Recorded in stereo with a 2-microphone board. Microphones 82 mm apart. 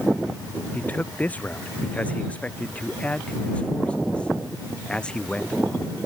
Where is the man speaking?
20° left (ahead or behind); by 5.9 s 10° left (ahead or behind).